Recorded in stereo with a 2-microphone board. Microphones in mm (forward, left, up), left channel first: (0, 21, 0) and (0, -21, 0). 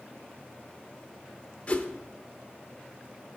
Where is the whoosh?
35° left (ahead or behind), 0.7 m.